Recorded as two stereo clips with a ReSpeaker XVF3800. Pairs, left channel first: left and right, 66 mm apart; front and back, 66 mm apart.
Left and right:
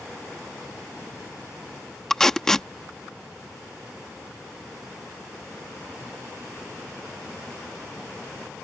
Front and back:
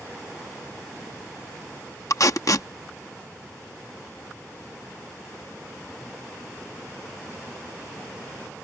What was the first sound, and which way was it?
Tape being pulled, 10° left.